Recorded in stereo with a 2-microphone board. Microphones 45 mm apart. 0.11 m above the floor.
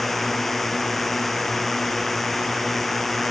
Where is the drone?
5° left (ahead or behind).